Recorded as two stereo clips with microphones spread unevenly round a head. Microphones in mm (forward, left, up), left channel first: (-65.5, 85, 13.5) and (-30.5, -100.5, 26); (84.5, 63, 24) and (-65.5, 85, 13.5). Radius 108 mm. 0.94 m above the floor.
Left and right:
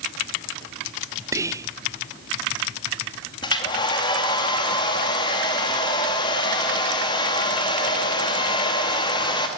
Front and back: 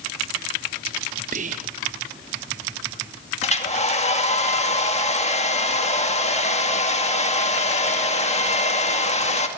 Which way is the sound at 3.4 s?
35° left.